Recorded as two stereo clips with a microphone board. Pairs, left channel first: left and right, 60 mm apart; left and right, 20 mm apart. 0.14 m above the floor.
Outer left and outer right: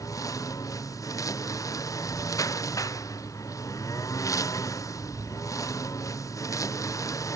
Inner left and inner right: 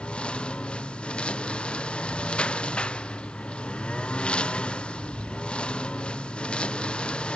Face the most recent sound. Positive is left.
turn(degrees=60)  # may be behind; listen again after turning